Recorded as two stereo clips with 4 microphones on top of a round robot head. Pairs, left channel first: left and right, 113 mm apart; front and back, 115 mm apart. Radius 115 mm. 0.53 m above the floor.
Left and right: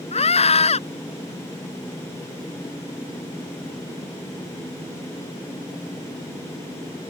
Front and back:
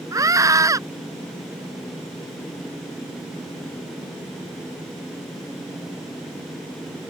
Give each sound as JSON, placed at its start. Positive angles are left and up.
{"t": 0.1, "sound": "a scream", "azimuth_deg": 115}